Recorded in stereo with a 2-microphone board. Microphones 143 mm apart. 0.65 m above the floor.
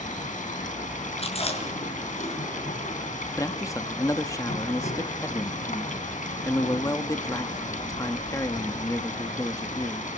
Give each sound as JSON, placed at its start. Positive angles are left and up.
{"t": 0.0, "sound": "running water", "side_deg": 65, "distance_m": 3.0}
{"t": 1.2, "sound": "chewing", "side_deg": 45, "distance_m": 6.0}
{"t": 3.4, "sound": "a man speaking", "side_deg": 25, "distance_m": 1.2}